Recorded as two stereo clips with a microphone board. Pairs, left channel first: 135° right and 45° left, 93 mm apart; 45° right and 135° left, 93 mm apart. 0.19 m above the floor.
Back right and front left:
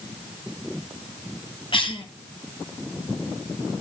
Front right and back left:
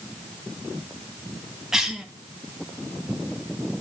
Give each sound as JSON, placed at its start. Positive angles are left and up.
{"t": 1.7, "sound": "a cough", "azimuth_deg": -140, "distance_m": 2.5}